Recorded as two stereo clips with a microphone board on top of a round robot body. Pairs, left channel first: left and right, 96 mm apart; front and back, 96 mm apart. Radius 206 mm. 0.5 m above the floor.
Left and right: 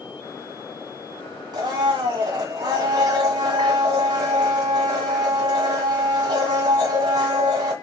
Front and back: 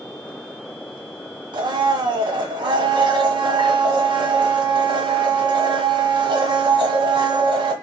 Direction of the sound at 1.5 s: 140° right.